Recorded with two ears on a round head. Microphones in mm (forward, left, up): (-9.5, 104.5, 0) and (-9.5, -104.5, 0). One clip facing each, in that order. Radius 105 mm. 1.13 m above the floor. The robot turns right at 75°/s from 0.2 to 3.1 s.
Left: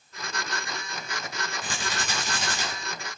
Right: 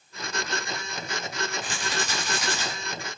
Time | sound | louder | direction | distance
1.6 | a rattle | right 2 dB | 90° left | 9 m